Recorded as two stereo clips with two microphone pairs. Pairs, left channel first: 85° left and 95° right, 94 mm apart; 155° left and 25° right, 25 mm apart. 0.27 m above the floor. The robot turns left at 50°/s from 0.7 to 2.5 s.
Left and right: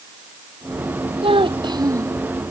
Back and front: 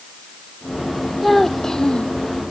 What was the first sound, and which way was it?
A child speaking, 115° right.